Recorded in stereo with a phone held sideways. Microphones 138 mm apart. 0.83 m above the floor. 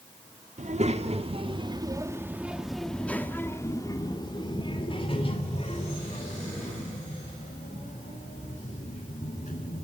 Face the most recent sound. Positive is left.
turn(degrees=60)  # may be behind; listen again after turning